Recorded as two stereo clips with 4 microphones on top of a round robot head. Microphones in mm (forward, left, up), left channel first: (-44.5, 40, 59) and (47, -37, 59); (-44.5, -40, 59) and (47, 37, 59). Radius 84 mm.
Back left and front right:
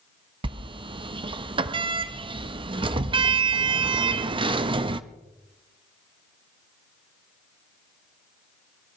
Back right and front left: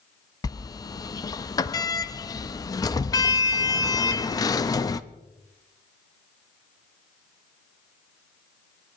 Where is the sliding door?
85° right, 0.6 m.